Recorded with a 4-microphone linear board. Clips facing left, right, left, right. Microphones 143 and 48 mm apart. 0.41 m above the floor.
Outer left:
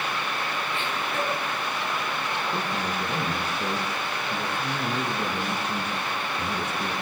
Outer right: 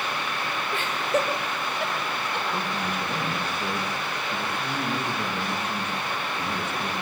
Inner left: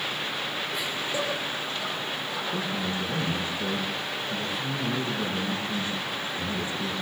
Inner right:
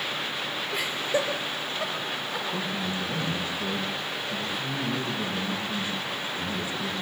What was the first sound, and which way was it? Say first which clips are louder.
Laughter: outer right 7 dB, inner right 5 dB; 40° right (ahead or behind).